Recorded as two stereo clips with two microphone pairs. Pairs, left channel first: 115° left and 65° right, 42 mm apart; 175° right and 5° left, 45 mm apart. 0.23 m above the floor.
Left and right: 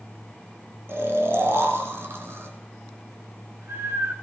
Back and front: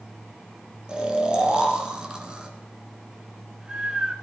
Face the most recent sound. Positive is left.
turn(degrees=-70)